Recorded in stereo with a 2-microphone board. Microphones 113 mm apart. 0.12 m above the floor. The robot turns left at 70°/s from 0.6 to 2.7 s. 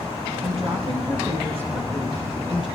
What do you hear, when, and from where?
0.4 s a woman speaking: 90° right, 3 m; by 2.7 s 125° left, 3 m